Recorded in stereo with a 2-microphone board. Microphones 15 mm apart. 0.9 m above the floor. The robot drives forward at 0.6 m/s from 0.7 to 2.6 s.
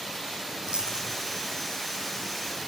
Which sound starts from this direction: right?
A dropped coin, at 0.7 s.